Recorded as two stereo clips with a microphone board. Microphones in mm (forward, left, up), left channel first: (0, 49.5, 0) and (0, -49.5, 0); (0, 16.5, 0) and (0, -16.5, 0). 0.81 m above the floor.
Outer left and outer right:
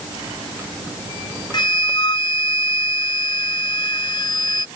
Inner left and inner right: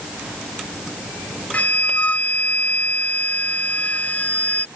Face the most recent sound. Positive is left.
turn(degrees=50)  # may be behind; listen again after turning